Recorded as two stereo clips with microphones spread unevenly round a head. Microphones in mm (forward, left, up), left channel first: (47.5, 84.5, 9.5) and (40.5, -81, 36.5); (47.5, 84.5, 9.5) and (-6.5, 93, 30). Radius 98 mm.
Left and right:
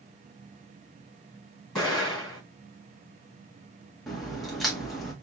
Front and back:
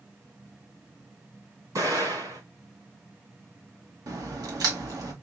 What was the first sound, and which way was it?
An explosion, straight behind.